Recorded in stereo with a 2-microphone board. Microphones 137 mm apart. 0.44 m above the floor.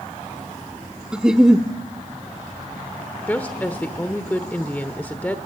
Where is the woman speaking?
10° left (ahead or behind), 1.0 m.